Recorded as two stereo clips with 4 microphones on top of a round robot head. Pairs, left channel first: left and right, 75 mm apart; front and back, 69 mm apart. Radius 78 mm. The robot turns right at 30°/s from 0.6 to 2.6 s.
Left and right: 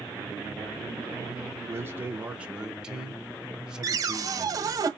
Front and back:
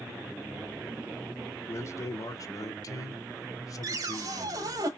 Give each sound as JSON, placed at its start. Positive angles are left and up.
{"t": 1.7, "sound": "a man speaking", "azimuth_deg": -40, "distance_m": 1.0}
{"t": 3.8, "sound": "a cupboard door", "azimuth_deg": -135, "distance_m": 0.9}